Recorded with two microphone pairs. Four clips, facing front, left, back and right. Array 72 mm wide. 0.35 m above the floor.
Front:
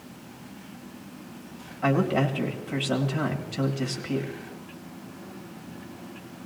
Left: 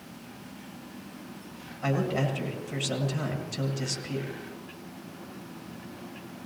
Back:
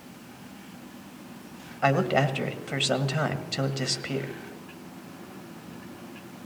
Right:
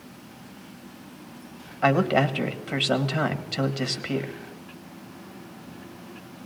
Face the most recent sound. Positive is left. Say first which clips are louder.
# right 7 dB, back 1 dB
turn(degrees=-120)